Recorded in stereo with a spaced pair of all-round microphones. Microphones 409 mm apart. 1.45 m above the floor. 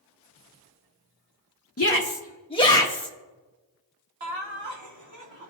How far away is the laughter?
About 1.9 m.